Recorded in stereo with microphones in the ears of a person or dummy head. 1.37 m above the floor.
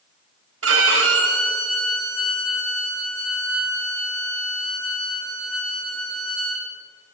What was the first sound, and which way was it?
A violin, 75° right (ahead or behind).